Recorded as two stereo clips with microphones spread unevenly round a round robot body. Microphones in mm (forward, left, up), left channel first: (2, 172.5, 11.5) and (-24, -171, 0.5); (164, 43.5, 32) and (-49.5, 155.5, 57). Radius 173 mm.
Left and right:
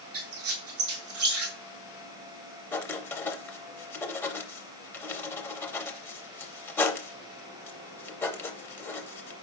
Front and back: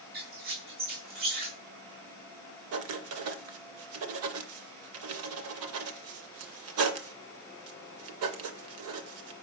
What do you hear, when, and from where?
0.1 s a squeak: 145° right, 1.5 m
2.7 s writing: 170° left, 0.5 m